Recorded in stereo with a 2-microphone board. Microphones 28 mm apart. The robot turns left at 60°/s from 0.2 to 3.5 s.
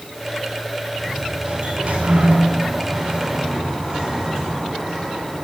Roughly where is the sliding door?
Ahead.